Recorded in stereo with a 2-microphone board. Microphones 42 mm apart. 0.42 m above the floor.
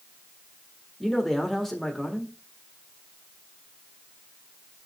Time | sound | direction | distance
1.0 | a man speaking | 5° left (ahead or behind) | 1.5 m